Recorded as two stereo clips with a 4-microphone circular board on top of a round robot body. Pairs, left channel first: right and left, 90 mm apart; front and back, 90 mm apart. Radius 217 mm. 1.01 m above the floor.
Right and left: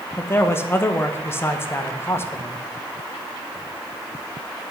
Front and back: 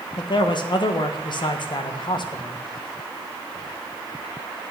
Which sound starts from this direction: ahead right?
A man speaking, at 0.2 s.